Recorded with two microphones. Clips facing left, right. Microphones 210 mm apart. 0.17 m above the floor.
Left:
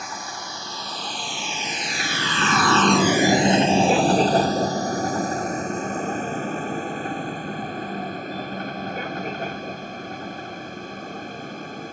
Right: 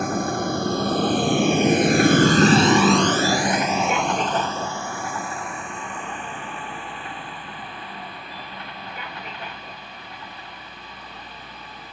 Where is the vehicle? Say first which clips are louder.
Right 13 dB; 60° right (ahead or behind); by 11.9 s 50° left (ahead or behind).